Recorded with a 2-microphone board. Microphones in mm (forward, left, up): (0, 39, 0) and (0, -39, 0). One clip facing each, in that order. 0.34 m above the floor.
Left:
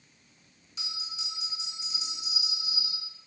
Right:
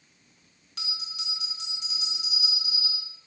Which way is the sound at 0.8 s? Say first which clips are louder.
Right 2 dB; 65° right (ahead or behind).